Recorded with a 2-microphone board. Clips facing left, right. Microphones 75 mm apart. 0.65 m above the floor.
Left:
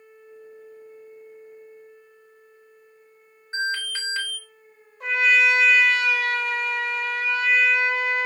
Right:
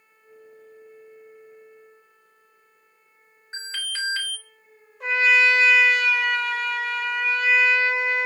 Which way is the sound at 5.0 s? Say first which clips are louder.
Right 1 dB; centre (ahead or behind).